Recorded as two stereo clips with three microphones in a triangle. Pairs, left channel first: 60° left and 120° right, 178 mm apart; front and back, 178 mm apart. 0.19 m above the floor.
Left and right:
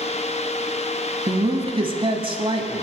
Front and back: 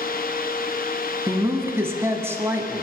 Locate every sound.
1.3 s a woman speaking: 120° right, 1.1 m